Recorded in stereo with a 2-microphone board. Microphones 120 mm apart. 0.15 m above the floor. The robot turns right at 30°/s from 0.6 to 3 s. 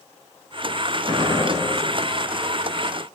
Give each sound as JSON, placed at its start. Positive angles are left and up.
{"t": 1.1, "sound": "a gunshot", "side_deg": -40, "distance_m": 0.8}